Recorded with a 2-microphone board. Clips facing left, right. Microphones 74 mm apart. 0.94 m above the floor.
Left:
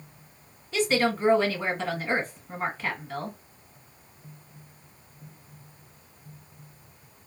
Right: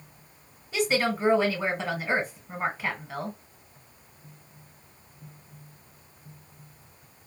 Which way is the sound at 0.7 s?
10° right (ahead or behind).